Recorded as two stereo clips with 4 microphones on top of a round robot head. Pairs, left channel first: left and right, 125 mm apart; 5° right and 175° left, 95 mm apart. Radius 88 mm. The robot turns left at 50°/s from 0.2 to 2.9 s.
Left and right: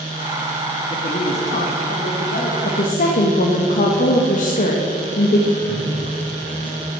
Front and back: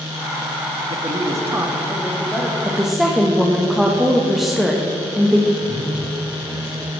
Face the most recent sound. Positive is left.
turn(degrees=165)